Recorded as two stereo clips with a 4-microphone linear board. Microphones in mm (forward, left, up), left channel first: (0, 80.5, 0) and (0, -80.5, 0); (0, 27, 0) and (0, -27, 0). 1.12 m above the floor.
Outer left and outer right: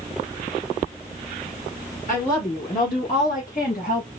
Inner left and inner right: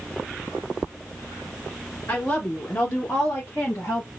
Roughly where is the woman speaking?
Left.